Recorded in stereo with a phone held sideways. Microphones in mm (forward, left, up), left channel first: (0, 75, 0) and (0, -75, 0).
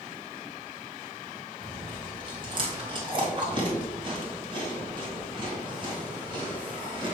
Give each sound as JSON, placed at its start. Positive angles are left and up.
{"t": 1.6, "sound": "chewing", "side_deg": -35, "distance_m": 1.9}